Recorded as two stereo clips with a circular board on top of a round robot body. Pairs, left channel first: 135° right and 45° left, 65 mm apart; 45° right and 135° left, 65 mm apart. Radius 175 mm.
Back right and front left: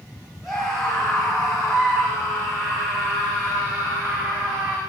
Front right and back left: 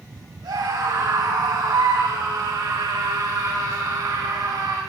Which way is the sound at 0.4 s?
125° left.